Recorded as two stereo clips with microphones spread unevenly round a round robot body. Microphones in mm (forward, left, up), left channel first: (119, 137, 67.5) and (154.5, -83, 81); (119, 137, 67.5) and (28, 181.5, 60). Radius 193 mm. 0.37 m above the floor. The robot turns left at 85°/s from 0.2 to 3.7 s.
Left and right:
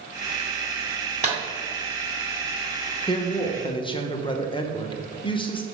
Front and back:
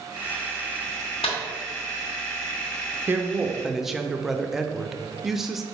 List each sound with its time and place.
1.2 s a clap: 25° right, 2.5 m; by 1.4 s 35° right, 2.5 m
3.1 s a woman speaking: 130° left, 0.8 m; by 5.6 s 75° left, 0.8 m